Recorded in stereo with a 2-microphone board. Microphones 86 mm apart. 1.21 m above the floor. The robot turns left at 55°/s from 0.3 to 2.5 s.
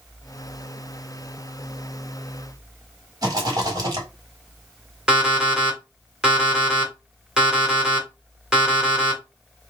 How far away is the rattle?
About 1.5 m.